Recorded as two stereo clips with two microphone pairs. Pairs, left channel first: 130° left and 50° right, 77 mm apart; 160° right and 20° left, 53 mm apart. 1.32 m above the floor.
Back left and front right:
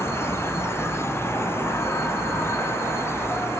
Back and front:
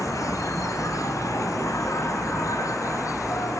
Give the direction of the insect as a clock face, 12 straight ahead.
6 o'clock.